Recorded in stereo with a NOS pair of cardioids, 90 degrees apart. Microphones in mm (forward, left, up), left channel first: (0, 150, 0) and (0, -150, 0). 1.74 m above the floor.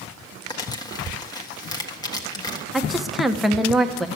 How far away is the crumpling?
About 1.5 m.